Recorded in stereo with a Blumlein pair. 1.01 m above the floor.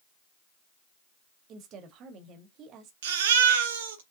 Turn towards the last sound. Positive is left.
turn(degrees=-55)